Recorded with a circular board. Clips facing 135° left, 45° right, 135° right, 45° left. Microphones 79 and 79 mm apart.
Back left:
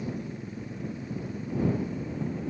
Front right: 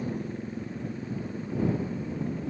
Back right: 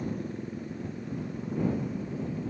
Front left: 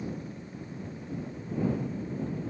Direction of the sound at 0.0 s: 95° right.